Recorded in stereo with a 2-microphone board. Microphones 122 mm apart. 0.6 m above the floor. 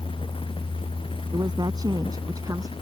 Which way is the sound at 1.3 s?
35° right (ahead or behind).